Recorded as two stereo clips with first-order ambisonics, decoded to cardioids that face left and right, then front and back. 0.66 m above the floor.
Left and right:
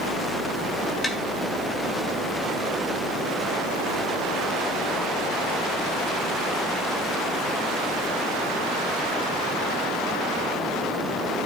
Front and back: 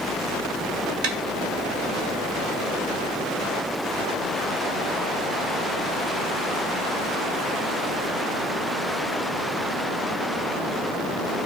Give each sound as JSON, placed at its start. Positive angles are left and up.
{"t": 1.0, "sound": "tapping", "azimuth_deg": 175, "distance_m": 1.2}